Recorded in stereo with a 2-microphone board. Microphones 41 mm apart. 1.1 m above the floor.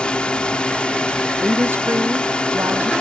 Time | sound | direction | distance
0.0 | a drone | 25° left (ahead or behind) | ?
1.4 | a woman speaking | 80° right | ?